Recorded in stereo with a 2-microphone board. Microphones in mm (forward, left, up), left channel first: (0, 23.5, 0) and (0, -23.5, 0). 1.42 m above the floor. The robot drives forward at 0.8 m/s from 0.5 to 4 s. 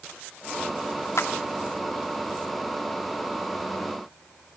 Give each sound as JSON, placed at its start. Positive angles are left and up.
{"t": 1.2, "sound": "a clap", "side_deg": 70, "distance_m": 2.0}